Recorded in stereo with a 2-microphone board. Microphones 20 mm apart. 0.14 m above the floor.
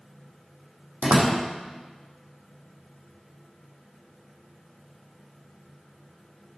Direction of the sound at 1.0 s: 75° right (ahead or behind).